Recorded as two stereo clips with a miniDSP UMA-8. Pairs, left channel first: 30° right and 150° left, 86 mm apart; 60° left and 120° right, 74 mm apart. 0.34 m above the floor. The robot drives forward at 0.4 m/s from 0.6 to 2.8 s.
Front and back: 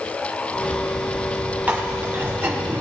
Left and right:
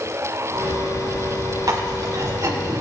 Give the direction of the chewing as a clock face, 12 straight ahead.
5 o'clock.